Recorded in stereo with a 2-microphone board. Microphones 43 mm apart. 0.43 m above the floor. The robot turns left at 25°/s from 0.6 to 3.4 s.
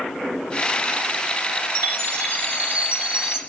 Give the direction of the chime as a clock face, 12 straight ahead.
4 o'clock.